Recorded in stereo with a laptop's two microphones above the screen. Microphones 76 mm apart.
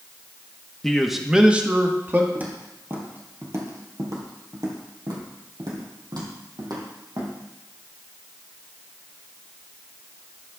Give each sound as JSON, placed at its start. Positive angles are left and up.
{"t": 0.8, "sound": "a man speaking", "side_deg": 10, "distance_m": 1.1}
{"t": 2.4, "sound": "footsteps", "side_deg": -25, "distance_m": 1.8}